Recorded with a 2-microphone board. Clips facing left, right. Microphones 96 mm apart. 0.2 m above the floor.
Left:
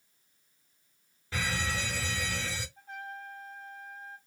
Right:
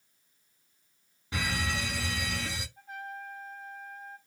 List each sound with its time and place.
1.3 s a fire alarm: 15° right (ahead or behind), 3.5 m
2.8 s a trumpet: 5° right (ahead or behind), 3 m